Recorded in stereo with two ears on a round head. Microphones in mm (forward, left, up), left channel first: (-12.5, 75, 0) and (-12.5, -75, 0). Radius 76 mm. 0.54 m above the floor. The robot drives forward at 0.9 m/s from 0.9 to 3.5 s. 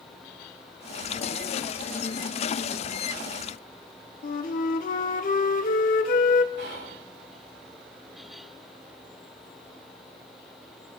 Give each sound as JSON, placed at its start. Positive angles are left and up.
{"t": 4.2, "sound": "a flute", "side_deg": 50, "distance_m": 0.6}
{"t": 6.6, "sound": "whispering", "side_deg": -70, "distance_m": 3.5}